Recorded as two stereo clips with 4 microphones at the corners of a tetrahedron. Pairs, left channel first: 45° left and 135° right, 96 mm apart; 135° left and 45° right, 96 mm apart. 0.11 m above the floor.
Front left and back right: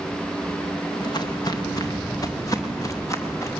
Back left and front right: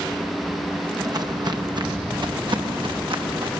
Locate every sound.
1.0 s footsteps: 5° left, 2 m; by 3.6 s 15° right, 3.5 m